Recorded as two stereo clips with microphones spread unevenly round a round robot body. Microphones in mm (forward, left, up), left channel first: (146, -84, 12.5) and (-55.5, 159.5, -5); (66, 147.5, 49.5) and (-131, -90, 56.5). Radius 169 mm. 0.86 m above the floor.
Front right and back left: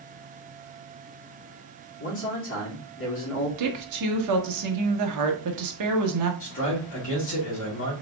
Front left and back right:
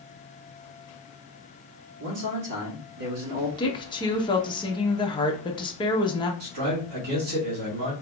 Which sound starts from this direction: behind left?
A woman speaking, at 3.6 s.